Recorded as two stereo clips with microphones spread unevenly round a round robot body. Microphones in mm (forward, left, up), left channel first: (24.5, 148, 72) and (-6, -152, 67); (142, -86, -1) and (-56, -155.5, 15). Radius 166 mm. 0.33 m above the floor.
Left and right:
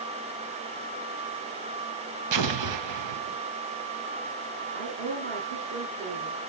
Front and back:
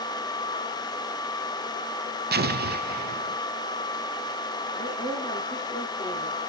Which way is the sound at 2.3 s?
115° right.